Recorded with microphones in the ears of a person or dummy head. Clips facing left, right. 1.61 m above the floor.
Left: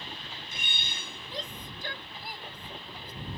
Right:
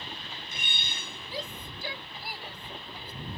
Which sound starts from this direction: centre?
A shout, at 1.3 s.